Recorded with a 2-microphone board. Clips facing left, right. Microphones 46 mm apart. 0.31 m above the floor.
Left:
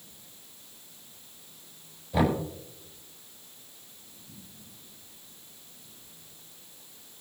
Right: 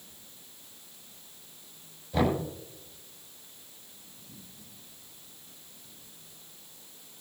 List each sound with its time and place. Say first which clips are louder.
2.1 s knocking: left 1 dB; 5° left (ahead or behind), 5 m